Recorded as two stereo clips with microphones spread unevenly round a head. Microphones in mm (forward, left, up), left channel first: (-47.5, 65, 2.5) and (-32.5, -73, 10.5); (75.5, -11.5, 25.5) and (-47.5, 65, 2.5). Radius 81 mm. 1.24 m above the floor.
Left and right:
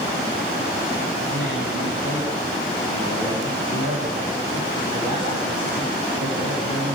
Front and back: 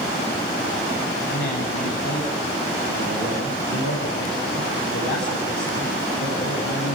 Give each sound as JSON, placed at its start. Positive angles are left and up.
{"t": 1.3, "sound": "a man speaking", "azimuth_deg": -20, "distance_m": 8.5}